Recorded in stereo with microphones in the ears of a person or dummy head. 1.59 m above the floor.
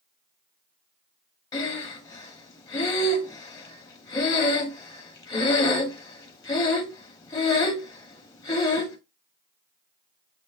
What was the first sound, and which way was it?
Breathing, 20° left (ahead or behind).